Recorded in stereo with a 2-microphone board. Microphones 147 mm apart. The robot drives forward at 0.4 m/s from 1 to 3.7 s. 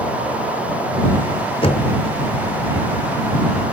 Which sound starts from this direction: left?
Knocking, at 1.6 s.